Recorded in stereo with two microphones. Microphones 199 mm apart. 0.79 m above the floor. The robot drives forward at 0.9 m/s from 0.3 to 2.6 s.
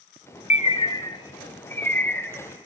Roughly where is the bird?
Left.